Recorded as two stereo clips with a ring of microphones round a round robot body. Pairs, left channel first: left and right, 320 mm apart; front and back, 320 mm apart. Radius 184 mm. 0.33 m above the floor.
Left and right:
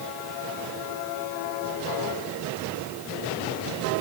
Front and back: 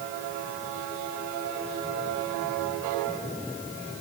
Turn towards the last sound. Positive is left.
No sound to turn to.